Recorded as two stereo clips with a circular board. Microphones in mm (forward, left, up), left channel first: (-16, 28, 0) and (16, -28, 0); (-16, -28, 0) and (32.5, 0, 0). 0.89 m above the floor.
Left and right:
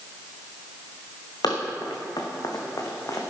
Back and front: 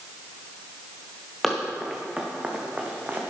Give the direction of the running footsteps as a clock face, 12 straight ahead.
8 o'clock.